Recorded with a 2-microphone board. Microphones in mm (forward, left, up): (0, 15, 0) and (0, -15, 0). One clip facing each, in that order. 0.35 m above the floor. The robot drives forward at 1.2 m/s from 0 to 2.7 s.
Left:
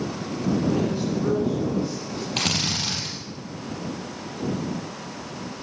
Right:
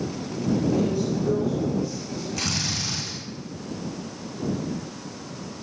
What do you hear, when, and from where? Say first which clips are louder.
0.8 s a woman speaking: even; 45° left (ahead or behind), 4 m; by 2.3 s 65° left (ahead or behind), 3 m
2.4 s a drill: left 4 dB; 85° left, 4 m